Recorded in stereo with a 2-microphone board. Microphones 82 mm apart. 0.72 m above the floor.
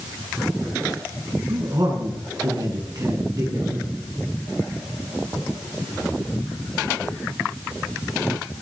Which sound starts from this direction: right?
A man speaking, at 1.5 s.